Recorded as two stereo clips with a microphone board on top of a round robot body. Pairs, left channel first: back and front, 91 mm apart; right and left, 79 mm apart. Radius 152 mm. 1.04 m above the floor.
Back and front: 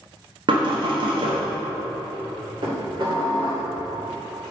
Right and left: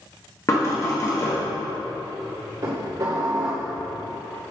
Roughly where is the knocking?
Ahead right.